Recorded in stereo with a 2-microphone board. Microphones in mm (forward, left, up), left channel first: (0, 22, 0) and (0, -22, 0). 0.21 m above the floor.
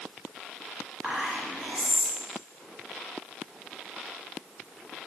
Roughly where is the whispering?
Right.